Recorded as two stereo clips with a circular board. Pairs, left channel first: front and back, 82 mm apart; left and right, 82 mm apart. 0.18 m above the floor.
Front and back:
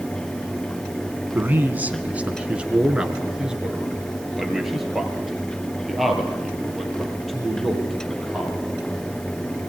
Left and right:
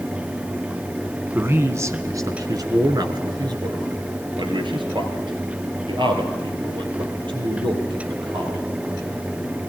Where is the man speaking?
135° right, 1.2 m; by 8.6 s 90° right, 5 m.